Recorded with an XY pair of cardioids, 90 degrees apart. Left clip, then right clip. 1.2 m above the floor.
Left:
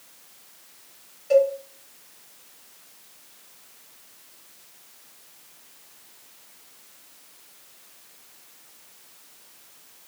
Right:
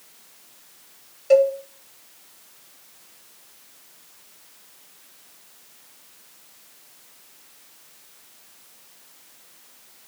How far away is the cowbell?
About 1.1 m.